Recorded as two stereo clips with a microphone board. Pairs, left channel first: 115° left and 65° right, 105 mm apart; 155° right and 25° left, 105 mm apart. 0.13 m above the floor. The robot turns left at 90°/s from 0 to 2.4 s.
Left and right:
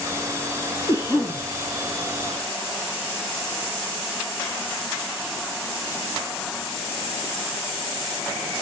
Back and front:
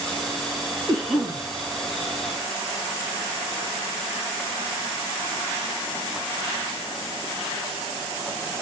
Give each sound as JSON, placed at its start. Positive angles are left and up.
{"t": 0.9, "sound": "a cough", "azimuth_deg": 125, "distance_m": 1.4}